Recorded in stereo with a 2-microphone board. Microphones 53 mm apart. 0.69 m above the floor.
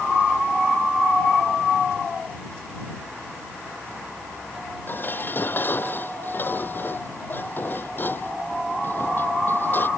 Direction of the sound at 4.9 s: 40° left (ahead or behind).